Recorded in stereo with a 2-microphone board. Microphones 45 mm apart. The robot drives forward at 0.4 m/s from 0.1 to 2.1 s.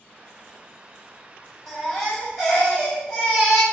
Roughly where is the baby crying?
Centre.